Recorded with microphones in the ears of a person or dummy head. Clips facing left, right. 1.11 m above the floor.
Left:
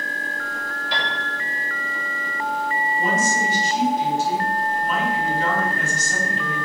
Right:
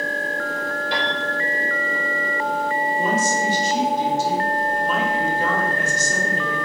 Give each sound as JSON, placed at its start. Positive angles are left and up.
{"t": 0.9, "sound": "a piano", "side_deg": -50, "distance_m": 3.5}
{"t": 3.0, "sound": "a woman speaking", "side_deg": -80, "distance_m": 3.0}